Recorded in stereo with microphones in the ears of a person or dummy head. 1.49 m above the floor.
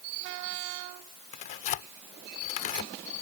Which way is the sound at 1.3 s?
45° left (ahead or behind).